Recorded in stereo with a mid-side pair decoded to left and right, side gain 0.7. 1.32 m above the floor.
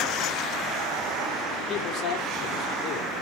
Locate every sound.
1.7 s a man speaking: 55° left, 5 m